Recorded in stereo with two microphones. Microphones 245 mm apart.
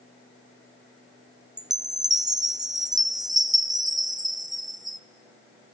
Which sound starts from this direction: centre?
A chime, at 1.6 s.